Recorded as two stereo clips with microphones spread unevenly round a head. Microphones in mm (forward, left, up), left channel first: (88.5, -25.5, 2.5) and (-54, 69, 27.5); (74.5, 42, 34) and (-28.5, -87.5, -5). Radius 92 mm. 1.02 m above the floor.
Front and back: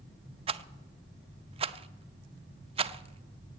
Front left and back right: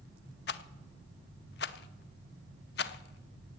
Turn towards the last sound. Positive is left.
turn(degrees=90)